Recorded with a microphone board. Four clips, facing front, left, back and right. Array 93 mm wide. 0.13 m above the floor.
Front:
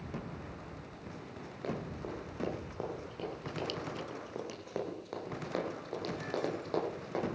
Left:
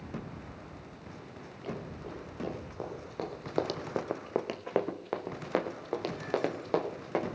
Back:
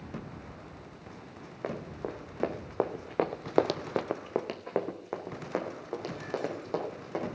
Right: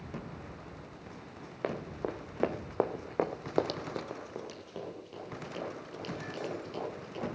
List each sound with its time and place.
1.6 s running footsteps: 115° right, 3 m; by 7.4 s 100° left, 5 m